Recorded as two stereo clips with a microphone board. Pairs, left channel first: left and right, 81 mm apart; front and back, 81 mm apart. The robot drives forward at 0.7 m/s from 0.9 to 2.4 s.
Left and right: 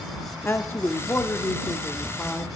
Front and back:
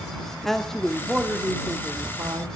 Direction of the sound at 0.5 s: 85° left.